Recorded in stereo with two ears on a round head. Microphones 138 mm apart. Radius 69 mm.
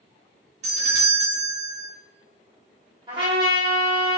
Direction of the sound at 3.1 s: 30° right (ahead or behind).